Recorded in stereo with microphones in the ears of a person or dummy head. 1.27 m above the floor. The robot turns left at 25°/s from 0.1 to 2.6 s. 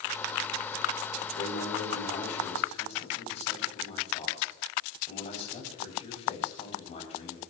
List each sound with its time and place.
1.4 s a man speaking: 75° left, 7.5 m; by 7.4 s 45° left, 7.5 m